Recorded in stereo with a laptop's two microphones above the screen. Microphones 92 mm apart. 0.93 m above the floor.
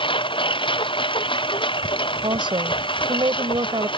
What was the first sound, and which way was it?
A lawn mower, 65° left (ahead or behind).